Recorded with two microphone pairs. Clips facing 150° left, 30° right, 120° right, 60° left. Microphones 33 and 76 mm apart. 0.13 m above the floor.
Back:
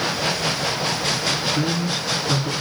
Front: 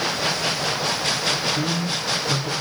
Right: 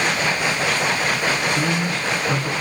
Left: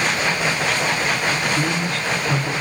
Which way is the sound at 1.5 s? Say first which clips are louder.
Back 1 dB, even; 160° right.